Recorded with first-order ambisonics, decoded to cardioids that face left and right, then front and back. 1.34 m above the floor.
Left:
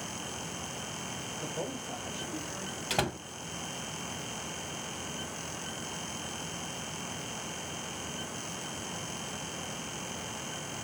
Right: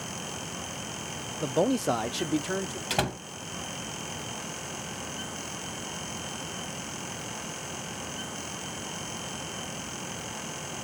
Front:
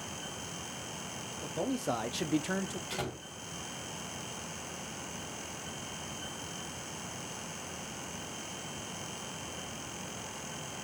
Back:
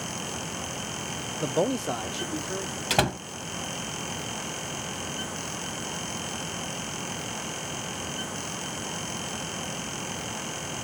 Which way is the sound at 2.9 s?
175° right.